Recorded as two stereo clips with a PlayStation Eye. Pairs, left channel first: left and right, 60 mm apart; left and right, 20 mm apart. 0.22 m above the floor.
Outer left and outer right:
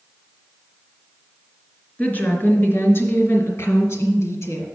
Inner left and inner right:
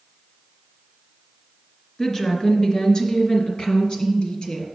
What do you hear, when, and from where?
2.0 s a woman speaking: 25° left (ahead or behind), 1.4 m; by 4.7 s 50° left (ahead or behind), 2.5 m